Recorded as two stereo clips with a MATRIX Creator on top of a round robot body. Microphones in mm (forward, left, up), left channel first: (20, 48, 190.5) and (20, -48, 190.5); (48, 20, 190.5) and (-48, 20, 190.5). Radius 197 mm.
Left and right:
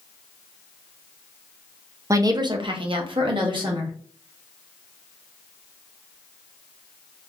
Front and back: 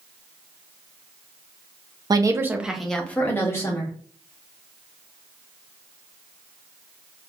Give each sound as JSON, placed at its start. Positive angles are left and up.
{"t": 2.1, "sound": "a woman speaking", "azimuth_deg": -140, "distance_m": 0.7}